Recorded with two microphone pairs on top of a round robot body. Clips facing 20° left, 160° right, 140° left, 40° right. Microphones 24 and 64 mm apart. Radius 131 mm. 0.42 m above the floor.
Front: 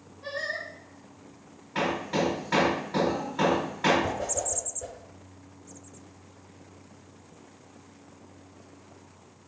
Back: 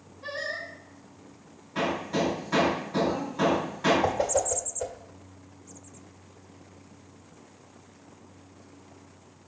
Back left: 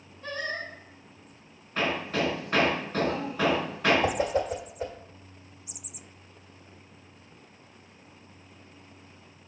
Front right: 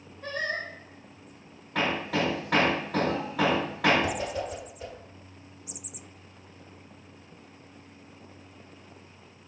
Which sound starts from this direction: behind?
A whoosh, at 4.0 s.